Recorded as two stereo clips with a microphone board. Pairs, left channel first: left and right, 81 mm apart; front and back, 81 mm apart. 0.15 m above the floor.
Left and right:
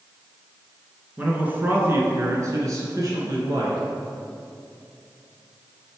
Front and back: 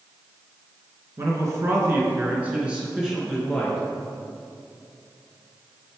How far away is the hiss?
No hiss in this recording.